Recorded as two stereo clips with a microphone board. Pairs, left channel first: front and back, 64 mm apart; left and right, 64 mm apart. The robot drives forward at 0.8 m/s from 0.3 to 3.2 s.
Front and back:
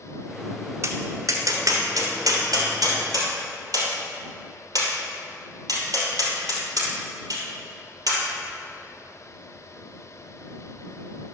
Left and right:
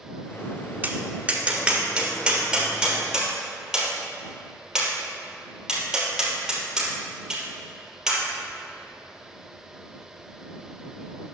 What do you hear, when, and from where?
0.8 s tapping: 150° right, 1.0 m; by 8.2 s 170° right, 2.5 m